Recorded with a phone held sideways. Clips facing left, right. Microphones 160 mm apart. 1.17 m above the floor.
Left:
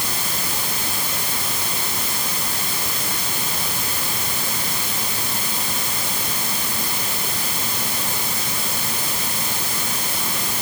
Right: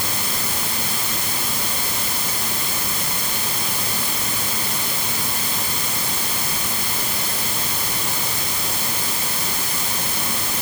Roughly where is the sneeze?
I don't hear a sneeze.